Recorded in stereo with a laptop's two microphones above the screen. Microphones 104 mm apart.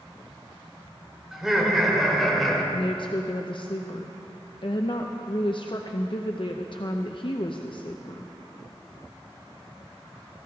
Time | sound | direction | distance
1.3 | laughter | 5° right (ahead or behind) | 3.5 m
2.7 | a woman speaking | 55° left (ahead or behind) | 0.5 m